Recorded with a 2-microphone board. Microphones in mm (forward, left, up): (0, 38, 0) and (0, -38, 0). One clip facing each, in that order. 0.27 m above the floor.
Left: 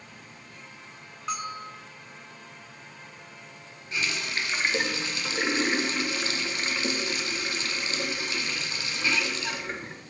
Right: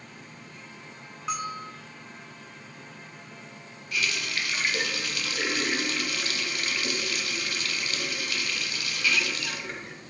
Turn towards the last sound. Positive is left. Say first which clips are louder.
# even
turn(degrees=30)  # may be behind; listen again after turning